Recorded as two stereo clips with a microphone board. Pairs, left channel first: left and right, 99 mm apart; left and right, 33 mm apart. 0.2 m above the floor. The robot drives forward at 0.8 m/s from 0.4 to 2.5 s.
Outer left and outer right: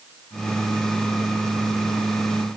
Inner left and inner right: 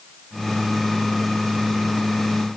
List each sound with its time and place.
Only background noise.